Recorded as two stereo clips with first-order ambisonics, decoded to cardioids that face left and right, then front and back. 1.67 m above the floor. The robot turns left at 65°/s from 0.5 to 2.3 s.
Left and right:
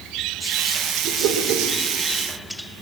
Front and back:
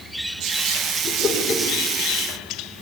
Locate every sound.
1.0 s a whoosh: 55° right, 4.5 m; by 1.7 s 95° right, 4.5 m